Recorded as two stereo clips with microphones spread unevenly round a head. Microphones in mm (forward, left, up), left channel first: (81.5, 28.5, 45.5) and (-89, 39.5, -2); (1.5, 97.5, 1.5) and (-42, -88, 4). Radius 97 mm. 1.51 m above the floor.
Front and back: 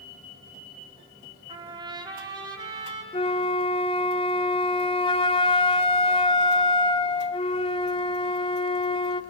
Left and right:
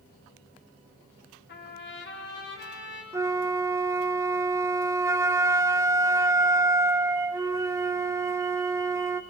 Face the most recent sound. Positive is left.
turn(degrees=-30)